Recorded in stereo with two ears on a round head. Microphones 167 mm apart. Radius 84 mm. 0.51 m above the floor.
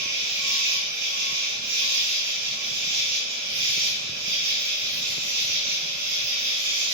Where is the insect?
60° right (ahead or behind), 0.9 m.